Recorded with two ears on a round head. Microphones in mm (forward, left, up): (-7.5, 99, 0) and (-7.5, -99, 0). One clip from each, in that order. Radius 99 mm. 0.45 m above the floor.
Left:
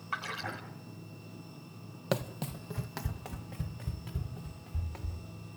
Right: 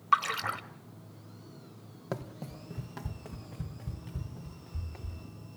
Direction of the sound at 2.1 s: 65° left (ahead or behind).